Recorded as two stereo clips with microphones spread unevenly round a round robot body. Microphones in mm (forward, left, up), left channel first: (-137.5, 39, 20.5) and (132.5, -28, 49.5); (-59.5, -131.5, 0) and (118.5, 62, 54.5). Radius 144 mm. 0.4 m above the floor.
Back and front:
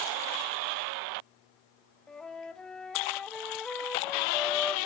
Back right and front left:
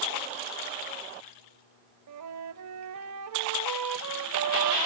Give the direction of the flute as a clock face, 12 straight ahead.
9 o'clock.